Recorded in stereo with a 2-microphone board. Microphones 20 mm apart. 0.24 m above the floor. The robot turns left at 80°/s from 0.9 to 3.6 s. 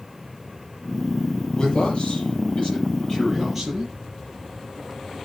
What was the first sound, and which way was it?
A man speaking, 150° left.